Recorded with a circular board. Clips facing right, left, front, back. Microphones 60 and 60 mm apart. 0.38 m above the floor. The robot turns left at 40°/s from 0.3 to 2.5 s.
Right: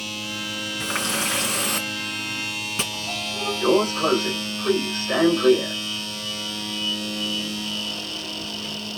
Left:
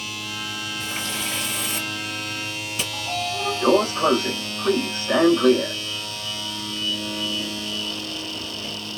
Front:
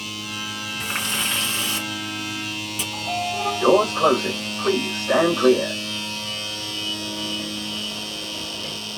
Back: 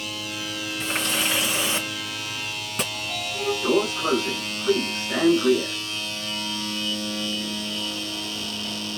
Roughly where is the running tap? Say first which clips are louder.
Right 6 dB, back 1 dB; right.